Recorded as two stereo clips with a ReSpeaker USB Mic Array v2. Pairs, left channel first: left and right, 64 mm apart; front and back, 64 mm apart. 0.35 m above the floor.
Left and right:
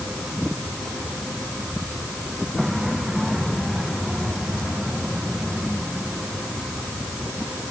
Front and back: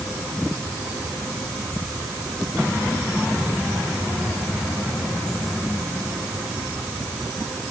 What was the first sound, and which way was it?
Only background noise.